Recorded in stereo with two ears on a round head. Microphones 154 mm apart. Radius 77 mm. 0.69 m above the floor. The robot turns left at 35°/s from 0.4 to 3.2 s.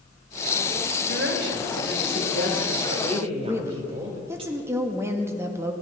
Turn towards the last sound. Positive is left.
turn(degrees=-15)  # may be behind; listen again after turning